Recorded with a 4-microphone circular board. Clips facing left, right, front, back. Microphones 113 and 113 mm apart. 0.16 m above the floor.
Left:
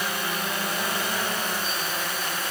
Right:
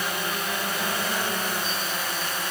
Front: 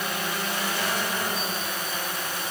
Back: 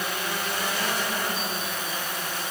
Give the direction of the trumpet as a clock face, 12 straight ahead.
I don't hear a trumpet.